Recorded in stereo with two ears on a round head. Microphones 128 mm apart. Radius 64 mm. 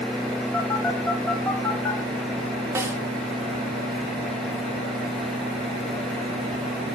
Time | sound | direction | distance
0.5 | a phone buzzing | 15° left (ahead or behind) | 4.5 m
2.8 | a snare drum | 20° right (ahead or behind) | 1.7 m